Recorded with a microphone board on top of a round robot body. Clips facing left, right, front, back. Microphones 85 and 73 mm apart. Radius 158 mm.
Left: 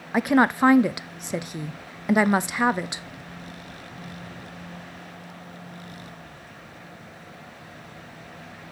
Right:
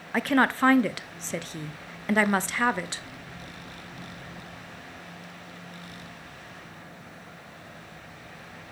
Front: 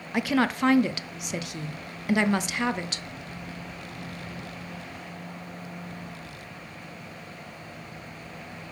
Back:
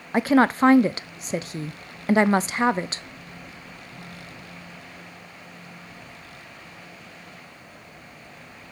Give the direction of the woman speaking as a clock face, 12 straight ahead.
7 o'clock.